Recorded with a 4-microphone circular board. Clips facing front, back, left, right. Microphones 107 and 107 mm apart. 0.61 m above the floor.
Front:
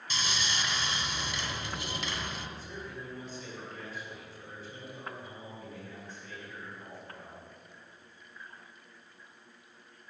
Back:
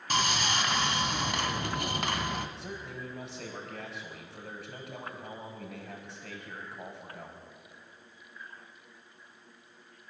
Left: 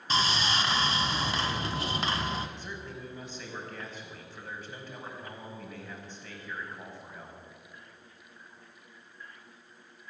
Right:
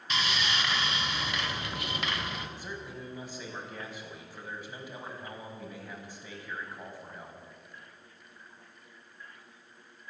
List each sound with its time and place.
0.1 s sawing: 150° left, 1.6 m
2.6 s a man speaking: 170° right, 5 m